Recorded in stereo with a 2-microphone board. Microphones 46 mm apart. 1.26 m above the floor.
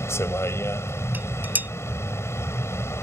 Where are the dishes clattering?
40° right (ahead or behind).